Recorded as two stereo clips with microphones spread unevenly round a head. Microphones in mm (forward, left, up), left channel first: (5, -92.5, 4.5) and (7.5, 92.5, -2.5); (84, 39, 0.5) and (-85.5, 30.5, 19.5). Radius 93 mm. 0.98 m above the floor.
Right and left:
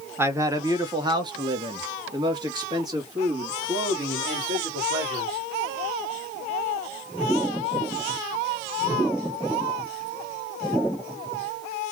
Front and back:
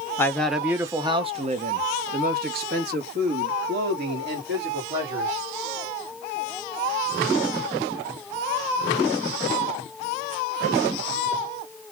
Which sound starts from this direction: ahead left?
A man speaking, at 0.2 s.